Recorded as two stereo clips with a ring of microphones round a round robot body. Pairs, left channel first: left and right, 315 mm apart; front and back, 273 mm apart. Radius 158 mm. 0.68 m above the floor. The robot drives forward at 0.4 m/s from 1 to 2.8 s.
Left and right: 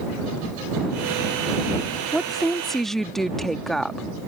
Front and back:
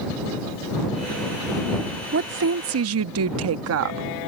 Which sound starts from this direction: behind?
A woman speaking, at 2.1 s.